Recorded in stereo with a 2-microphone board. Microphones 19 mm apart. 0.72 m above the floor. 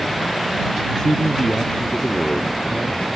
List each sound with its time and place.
1.0 s a man speaking: 40° left (ahead or behind); by 3.1 s 45° left (ahead or behind)